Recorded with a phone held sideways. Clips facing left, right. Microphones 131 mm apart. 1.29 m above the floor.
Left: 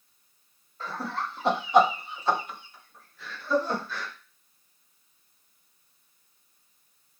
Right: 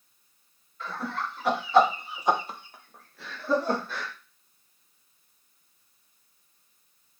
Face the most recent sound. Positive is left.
turn(degrees=-80)